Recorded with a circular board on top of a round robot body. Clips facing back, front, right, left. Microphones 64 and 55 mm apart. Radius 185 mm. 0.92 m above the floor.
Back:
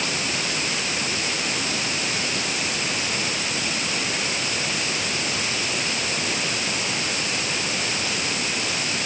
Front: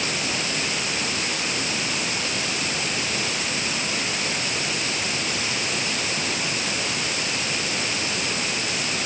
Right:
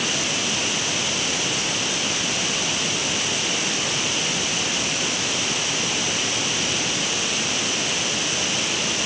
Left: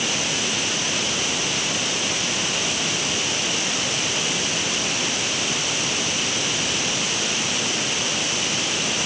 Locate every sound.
Only background noise.